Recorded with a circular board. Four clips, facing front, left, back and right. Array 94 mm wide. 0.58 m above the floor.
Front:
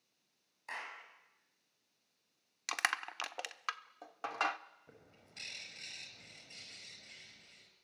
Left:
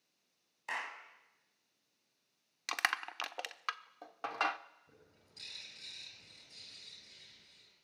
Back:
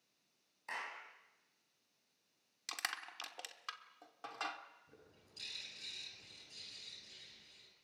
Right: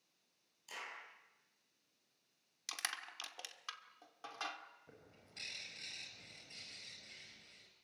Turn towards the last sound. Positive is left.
turn(degrees=-30)